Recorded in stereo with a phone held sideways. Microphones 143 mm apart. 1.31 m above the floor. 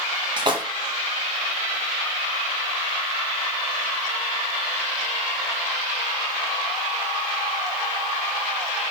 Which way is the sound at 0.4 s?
35° right (ahead or behind).